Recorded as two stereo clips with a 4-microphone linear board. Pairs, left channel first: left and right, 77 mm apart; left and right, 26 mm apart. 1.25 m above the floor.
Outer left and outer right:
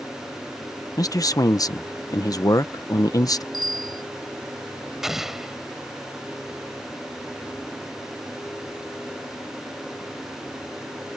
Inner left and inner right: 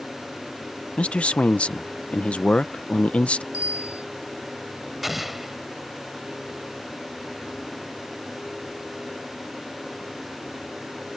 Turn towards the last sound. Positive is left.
turn(degrees=-5)  # may be behind; listen again after turning